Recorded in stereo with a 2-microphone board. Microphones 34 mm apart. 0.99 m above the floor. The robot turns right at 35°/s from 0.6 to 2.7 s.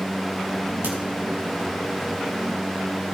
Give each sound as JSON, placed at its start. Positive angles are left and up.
{"t": 0.8, "sound": "a crack", "side_deg": -80, "distance_m": 5.0}